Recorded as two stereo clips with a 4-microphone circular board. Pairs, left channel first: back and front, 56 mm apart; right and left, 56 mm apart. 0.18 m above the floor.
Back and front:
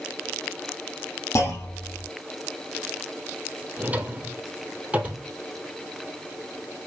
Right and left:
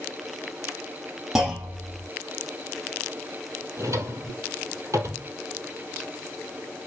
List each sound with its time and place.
1.4 s a clunk: 165° left, 5 m
3.8 s a drawer: 65° left, 1.8 m